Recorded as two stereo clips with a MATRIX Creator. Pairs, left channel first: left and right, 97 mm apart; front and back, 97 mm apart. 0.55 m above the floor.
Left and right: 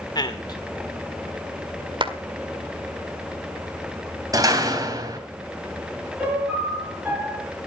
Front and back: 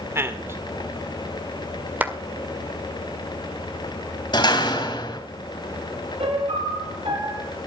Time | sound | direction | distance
0.1 | a man speaking | 120° left | 1.8 m
2.0 | a clap | 110° right | 1.7 m
4.3 | a door slam | 40° right | 3 m
6.2 | a piano | 170° right | 7.5 m